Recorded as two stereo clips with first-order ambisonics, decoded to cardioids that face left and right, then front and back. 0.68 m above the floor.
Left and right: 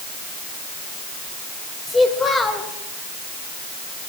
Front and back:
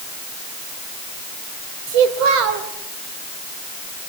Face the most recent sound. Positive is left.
turn(degrees=165)